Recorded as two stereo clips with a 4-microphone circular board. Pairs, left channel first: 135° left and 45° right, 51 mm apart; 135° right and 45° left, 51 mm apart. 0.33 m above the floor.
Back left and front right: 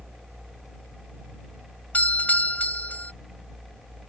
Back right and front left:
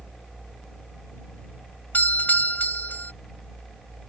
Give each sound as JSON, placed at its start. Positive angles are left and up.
{"t": 1.9, "sound": "a doorbell", "azimuth_deg": -175}